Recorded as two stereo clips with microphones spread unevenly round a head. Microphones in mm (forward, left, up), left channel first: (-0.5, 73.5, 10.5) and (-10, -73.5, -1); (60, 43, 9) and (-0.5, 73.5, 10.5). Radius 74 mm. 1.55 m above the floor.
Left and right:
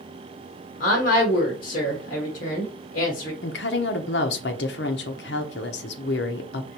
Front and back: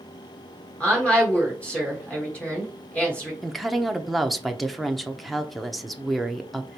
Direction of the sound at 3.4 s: 60° left.